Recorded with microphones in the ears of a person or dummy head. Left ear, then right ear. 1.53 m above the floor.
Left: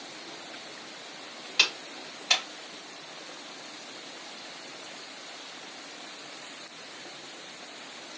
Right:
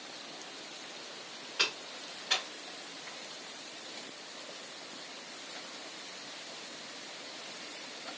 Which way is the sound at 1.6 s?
50° left (ahead or behind).